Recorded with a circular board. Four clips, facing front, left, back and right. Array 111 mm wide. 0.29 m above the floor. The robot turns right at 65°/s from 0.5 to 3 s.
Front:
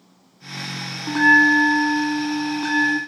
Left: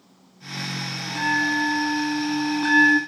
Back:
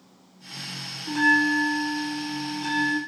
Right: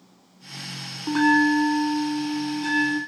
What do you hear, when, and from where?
1.1 s a bell: 50° right, 0.6 m; by 3.0 s 75° left, 0.6 m